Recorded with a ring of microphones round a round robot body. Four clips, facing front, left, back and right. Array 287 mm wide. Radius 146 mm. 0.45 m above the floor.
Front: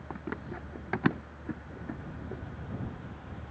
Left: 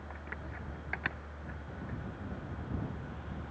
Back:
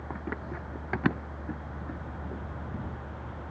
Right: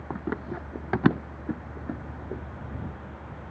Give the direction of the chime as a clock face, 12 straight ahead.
No chime in this recording.